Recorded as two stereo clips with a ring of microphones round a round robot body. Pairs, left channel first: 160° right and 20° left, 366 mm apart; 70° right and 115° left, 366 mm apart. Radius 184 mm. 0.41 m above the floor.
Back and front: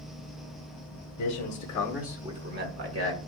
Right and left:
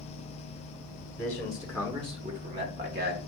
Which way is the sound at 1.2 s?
145° right.